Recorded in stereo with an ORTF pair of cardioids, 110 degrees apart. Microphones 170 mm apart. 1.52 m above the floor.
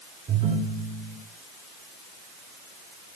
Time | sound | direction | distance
0.3 | a ringtone | 50° right | 5 m